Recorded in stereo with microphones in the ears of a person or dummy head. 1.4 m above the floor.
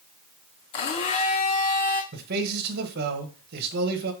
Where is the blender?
35° left (ahead or behind), 0.6 m.